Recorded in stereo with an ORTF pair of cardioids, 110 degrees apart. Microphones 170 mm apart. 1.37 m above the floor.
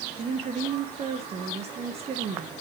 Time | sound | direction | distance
0.2 | a woman speaking | 35° right | 1.3 m